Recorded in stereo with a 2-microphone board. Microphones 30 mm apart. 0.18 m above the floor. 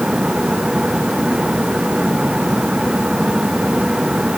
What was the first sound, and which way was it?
Only background noise.